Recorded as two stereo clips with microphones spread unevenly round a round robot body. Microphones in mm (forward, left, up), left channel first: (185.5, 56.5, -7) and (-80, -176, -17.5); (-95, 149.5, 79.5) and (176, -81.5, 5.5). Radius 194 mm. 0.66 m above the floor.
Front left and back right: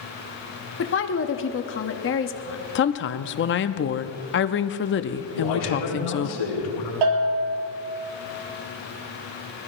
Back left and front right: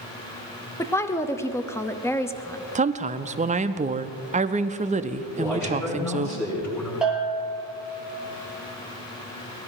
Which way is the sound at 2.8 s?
Straight ahead.